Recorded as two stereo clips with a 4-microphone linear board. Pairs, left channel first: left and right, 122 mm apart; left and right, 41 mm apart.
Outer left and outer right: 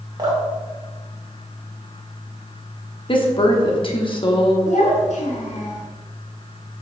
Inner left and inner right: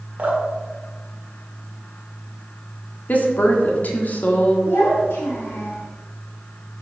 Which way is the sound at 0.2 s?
35° right (ahead or behind).